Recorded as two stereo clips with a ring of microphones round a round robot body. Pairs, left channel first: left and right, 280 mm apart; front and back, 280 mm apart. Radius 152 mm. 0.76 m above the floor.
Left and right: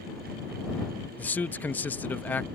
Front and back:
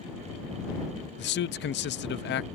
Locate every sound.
1.2 s a man speaking: 10° left